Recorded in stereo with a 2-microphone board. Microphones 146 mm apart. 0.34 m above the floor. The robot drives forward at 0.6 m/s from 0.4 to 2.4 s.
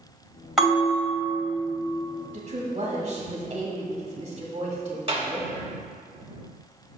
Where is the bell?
5° right (ahead or behind), 1.7 m.